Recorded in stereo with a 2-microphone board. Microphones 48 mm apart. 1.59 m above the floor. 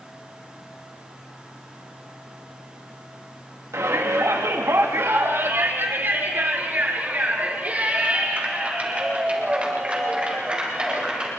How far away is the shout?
About 3 m.